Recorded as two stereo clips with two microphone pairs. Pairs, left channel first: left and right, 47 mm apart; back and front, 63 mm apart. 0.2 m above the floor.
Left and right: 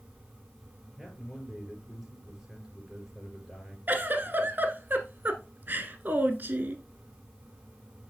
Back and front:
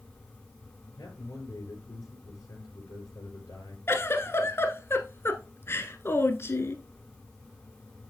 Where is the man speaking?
175° right, 4.5 m.